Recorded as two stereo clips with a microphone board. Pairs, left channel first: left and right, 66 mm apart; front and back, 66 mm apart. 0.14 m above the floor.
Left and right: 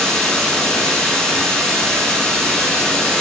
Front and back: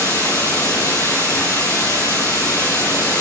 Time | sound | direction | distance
0.0 | running water | 15° left | 3.5 m